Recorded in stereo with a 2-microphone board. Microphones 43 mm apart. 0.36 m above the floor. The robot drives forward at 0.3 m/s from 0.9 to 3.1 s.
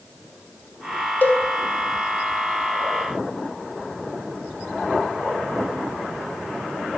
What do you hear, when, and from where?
1.2 s a cowbell: 50° left (ahead or behind), 0.6 m